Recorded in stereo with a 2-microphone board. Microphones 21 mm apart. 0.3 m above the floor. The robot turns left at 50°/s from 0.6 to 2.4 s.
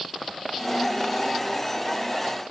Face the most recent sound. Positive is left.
No sound to turn to.